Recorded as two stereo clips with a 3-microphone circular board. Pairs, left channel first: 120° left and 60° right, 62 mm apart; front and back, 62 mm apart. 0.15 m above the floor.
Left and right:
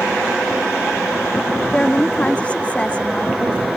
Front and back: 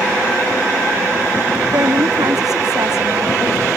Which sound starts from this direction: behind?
A woman speaking, at 1.7 s.